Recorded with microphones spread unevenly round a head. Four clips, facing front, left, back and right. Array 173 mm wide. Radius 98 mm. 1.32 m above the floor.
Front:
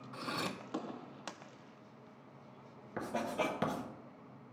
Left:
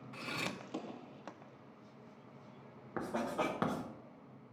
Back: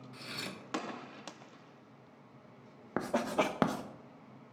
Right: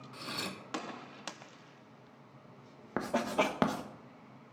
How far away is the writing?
About 0.8 m.